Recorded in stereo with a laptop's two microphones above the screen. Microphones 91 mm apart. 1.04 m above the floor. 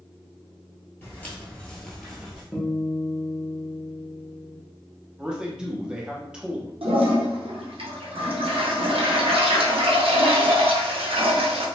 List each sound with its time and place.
1.0 s footsteps: 20° left (ahead or behind), 1.1 m; by 2.4 s 5° right (ahead or behind), 1.1 m
2.5 s a guitar: 5° right (ahead or behind), 0.7 m
5.2 s a man speaking: 10° right (ahead or behind), 0.6 m
6.8 s a toilet flushing: 85° right, 0.6 m